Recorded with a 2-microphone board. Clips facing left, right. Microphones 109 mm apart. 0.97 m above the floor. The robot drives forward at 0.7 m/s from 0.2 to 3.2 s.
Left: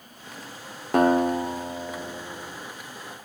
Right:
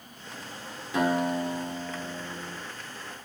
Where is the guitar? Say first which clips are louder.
Left 6 dB; 55° left (ahead or behind), 1.4 m; by 2.6 s 30° left (ahead or behind), 2 m.